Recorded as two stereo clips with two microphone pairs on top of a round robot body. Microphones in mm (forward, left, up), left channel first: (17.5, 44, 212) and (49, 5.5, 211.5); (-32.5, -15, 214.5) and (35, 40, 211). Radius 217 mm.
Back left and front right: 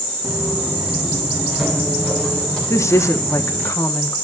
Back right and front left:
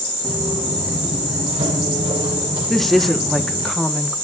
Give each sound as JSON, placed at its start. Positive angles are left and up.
{"t": 0.2, "sound": "footsteps", "azimuth_deg": 20, "distance_m": 1.5}
{"t": 2.7, "sound": "a woman speaking", "azimuth_deg": 130, "distance_m": 1.2}